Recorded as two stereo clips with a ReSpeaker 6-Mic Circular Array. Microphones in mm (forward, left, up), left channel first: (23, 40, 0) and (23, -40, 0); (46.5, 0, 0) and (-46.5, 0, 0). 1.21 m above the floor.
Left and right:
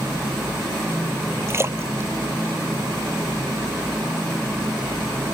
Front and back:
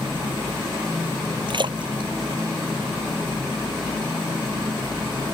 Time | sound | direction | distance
1.5 | a splash | 145° right | ?